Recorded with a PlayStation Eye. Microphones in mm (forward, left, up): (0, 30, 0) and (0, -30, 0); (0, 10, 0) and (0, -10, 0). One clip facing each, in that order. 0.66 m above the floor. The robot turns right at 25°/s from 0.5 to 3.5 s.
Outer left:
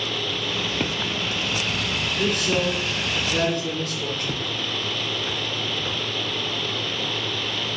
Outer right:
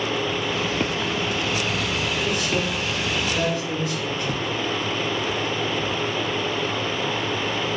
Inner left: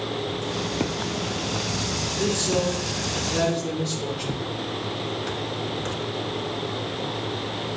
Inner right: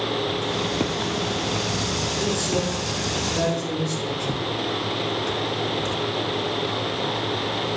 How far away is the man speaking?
About 2 m.